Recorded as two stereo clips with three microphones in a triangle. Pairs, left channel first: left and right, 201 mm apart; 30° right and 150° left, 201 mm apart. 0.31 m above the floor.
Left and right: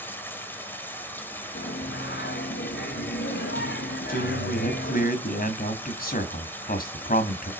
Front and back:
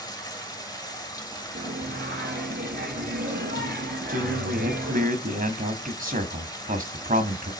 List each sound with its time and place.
0.0 s running water: 20° left, 1.4 m
1.6 s singing: 115° left, 1.5 m
4.1 s a man speaking: 115° left, 1.9 m